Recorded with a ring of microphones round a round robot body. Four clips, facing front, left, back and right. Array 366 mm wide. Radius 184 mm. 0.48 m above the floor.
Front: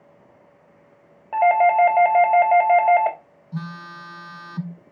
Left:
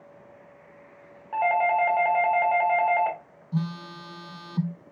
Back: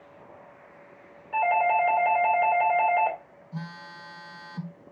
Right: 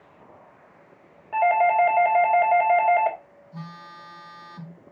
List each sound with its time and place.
1.3 s a doorbell: 10° right, 3 m
3.5 s a phone buzzing: 70° left, 0.8 m